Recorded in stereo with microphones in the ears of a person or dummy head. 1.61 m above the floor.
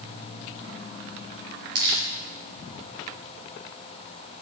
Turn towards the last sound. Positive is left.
turn(degrees=-60)  # may be behind; listen again after turning